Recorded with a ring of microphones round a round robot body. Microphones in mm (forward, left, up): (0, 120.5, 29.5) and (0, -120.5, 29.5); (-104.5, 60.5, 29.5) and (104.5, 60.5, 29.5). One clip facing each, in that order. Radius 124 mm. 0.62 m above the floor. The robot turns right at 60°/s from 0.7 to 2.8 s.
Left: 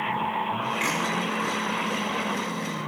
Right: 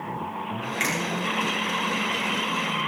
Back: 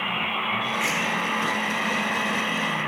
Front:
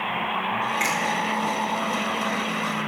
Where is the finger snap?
60° right, 8.5 m; by 0.9 s 50° right, 8.5 m.